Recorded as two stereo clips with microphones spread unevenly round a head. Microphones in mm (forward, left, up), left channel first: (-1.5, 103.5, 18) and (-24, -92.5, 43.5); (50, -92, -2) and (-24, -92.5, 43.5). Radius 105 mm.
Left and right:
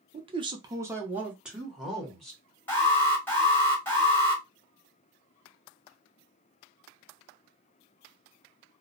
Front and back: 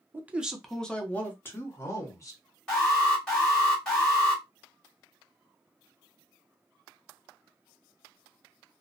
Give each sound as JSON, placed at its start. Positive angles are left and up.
{"t": 0.1, "sound": "a man speaking", "azimuth_deg": -70, "distance_m": 0.6}
{"t": 2.7, "sound": "an alarm", "azimuth_deg": 20, "distance_m": 1.6}